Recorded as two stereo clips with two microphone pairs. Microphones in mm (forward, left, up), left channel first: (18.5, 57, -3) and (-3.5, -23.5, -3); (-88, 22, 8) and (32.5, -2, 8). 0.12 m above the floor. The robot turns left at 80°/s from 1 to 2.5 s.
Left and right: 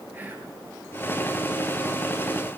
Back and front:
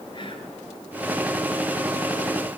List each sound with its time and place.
0.1 s whispering: 165° right, 2.5 m